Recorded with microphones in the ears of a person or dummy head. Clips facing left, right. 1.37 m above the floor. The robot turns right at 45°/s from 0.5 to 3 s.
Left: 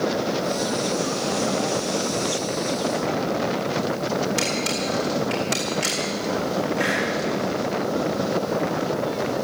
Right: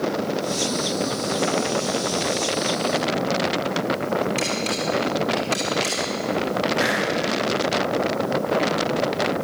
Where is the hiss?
10° right (ahead or behind), 7.5 m.